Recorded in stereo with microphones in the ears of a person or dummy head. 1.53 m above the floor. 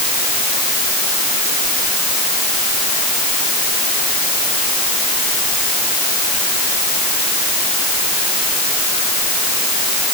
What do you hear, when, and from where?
Only background noise.